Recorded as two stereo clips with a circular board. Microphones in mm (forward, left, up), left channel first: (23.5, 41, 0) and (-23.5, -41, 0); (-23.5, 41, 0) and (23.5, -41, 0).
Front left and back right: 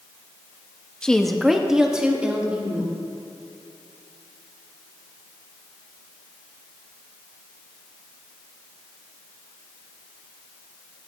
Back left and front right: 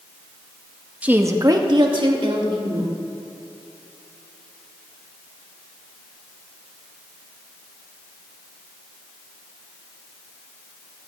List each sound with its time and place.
1.0 s a woman speaking: 5° right, 0.8 m; by 3.0 s 45° right, 3 m